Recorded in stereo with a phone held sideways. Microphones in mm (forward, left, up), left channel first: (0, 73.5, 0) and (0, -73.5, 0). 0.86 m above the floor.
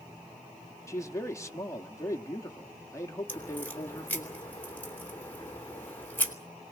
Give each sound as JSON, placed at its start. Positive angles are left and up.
{"t": 0.9, "sound": "a man speaking", "side_deg": 20, "distance_m": 1.3}
{"t": 3.3, "sound": "a crack", "side_deg": 15, "distance_m": 3.0}